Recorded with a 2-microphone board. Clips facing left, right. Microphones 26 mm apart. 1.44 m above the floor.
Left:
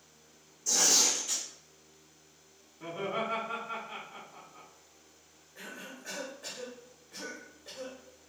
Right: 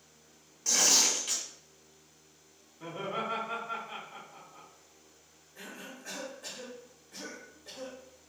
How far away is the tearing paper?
About 1.4 m.